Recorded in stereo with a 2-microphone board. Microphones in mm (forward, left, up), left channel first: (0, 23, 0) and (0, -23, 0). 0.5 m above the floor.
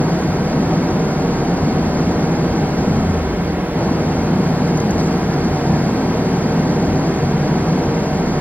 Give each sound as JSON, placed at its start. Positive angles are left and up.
{"t": 0.0, "sound": "an engine running", "side_deg": 35}